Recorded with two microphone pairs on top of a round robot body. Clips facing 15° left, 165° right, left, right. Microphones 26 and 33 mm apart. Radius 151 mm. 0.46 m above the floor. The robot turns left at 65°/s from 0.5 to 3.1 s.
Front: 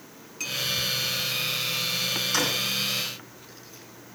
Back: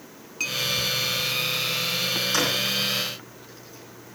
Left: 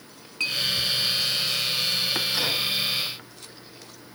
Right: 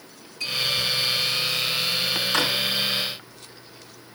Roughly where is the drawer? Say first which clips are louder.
Back 2 dB, right 6 dB; right.